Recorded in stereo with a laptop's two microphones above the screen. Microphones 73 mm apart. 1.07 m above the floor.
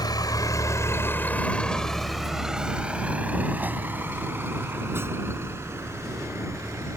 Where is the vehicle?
70° left (ahead or behind); by 7.0 s 40° right (ahead or behind).